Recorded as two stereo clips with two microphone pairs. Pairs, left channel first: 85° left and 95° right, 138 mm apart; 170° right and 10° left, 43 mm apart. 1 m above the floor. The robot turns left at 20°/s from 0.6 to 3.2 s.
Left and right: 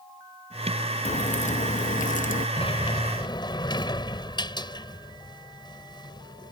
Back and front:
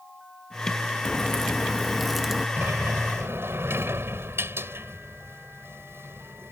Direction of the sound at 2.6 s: 40° left.